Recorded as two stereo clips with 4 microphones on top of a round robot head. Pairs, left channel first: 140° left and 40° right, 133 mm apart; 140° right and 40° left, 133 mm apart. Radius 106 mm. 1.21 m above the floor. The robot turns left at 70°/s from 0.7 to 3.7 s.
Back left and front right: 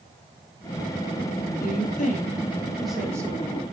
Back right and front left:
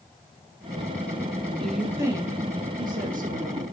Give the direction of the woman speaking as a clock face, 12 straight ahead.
7 o'clock.